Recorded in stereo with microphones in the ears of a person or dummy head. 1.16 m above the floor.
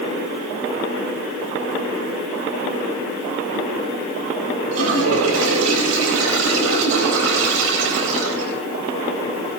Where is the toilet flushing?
85° right, 3.5 m.